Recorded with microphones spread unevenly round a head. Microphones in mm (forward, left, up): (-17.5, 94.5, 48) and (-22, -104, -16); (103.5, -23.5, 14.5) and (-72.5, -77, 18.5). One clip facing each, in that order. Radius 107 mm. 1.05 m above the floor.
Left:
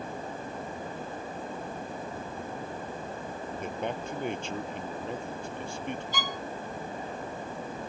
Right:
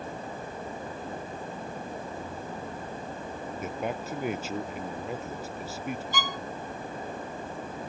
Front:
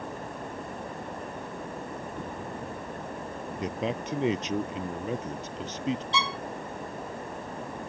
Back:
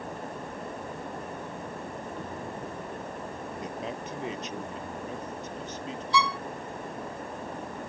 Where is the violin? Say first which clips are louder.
Right 1 dB, back 4 dB; 50° right.